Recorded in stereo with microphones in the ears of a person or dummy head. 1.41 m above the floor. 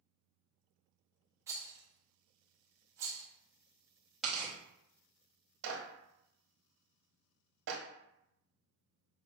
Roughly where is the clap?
Right.